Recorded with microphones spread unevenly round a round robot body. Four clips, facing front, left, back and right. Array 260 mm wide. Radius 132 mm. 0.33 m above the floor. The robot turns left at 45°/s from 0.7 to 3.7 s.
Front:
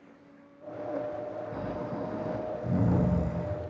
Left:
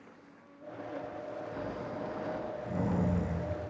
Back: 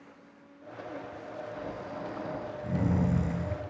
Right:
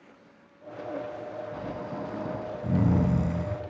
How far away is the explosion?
I don't hear an explosion.